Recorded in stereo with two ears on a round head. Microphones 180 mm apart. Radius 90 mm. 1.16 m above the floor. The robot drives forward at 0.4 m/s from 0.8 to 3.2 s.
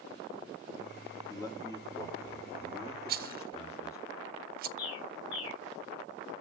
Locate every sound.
1.3 s a man speaking: 20° left (ahead or behind), 3 m; by 4.0 s 15° left (ahead or behind), 4 m
3.1 s a rattle: 50° right (ahead or behind), 0.7 m
4.8 s a bird: 70° left (ahead or behind), 5 m